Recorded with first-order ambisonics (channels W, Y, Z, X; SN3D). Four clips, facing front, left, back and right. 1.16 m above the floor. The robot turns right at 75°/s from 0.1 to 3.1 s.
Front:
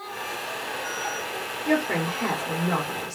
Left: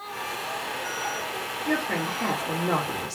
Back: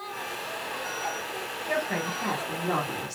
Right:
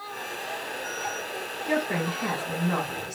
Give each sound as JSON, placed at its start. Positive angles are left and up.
{"t": 1.7, "sound": "a woman speaking", "azimuth_deg": 5, "distance_m": 2.0}